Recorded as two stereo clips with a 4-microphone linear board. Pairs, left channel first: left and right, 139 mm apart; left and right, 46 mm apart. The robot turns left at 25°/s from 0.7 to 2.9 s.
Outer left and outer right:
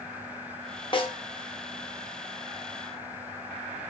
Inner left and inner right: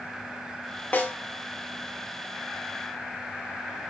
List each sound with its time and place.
0.9 s a snare drum: 40° left (ahead or behind), 0.5 m; by 1.2 s 30° left (ahead or behind), 0.5 m